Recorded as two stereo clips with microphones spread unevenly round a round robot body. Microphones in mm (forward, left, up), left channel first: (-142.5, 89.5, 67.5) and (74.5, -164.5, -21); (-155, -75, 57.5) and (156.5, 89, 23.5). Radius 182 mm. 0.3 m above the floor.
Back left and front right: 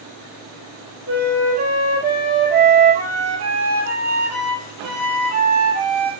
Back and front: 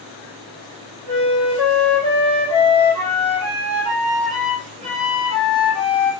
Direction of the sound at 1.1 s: 45° right.